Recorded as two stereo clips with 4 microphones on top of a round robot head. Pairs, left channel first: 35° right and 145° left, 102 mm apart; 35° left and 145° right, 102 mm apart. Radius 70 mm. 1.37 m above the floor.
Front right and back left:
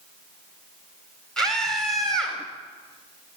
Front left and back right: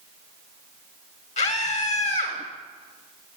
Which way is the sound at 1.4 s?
50° left.